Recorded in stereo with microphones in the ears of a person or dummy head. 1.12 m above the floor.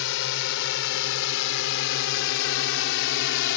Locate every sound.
0.0 s a drone: 70° left (ahead or behind); by 3.6 s 65° left (ahead or behind)